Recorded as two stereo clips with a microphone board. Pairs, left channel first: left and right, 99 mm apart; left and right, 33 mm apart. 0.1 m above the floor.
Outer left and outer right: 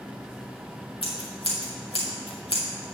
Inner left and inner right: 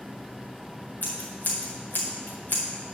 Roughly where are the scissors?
Left.